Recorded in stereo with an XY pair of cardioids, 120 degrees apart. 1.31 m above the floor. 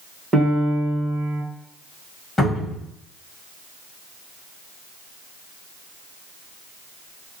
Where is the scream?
No scream in this recording.